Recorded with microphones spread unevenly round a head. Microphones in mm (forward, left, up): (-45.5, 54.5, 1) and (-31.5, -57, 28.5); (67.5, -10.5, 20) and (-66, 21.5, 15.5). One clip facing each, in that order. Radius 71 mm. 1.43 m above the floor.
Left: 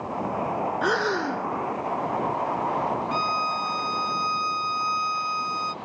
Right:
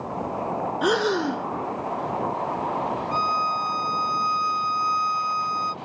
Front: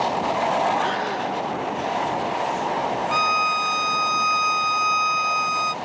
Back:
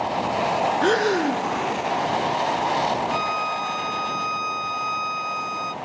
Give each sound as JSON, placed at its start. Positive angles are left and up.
{"t": 0.8, "sound": "breathing", "azimuth_deg": -160}
{"t": 3.1, "sound": "a violin", "azimuth_deg": 15}